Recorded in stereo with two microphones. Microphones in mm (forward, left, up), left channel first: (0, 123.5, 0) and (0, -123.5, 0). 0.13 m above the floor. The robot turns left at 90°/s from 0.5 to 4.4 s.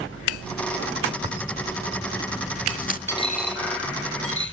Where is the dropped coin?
10° left (ahead or behind), 2 m; by 4.5 s 50° left (ahead or behind), 2 m.